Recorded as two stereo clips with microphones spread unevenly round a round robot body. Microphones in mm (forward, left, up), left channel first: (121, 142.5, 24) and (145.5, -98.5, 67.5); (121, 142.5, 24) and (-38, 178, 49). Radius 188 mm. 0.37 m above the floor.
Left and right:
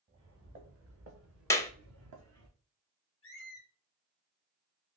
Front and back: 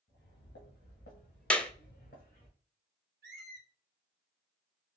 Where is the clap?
50° left, 0.6 m.